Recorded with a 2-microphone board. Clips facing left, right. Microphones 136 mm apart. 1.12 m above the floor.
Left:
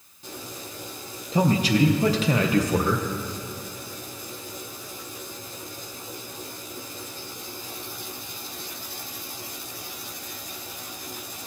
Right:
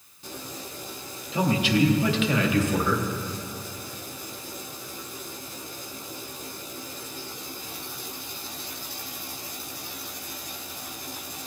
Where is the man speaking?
40° left (ahead or behind), 0.8 m.